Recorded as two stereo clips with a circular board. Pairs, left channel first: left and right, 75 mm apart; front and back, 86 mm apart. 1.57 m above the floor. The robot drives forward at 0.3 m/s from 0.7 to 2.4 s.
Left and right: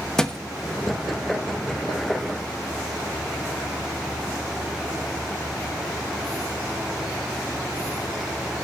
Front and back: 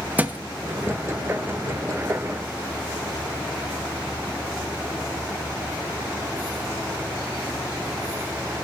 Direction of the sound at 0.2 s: 155° left.